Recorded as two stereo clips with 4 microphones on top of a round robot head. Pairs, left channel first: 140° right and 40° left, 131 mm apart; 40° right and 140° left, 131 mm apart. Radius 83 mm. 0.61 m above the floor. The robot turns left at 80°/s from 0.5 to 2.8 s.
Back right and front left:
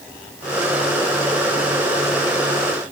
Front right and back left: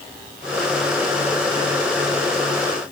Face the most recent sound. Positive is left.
No sound to turn to.